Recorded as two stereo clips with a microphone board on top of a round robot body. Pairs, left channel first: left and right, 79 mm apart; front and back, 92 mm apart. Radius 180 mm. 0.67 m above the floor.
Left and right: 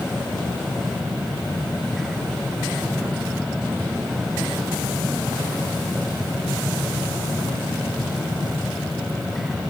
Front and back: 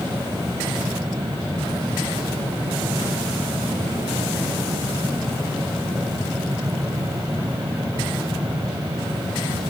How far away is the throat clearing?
I don't hear throat clearing.